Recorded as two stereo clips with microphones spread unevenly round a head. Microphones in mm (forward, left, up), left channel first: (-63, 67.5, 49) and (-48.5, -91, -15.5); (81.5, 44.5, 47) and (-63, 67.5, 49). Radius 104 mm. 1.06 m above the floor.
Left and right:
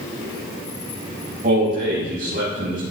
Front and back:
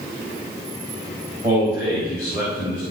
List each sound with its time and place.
1.4 s a man speaking: 120° right, 7 m